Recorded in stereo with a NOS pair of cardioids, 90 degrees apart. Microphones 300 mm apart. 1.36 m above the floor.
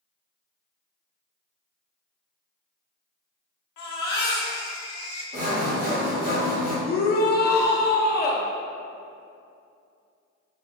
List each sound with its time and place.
3.8 s a baby crying: 65° left, 0.8 m
5.3 s sawing: 30° right, 0.9 m
6.8 s a shout: 35° left, 0.6 m